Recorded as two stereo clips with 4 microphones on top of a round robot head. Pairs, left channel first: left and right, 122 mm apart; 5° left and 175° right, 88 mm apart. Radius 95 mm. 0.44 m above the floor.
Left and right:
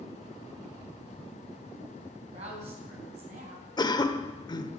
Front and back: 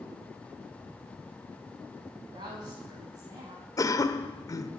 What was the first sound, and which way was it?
A woman speaking, 130° right.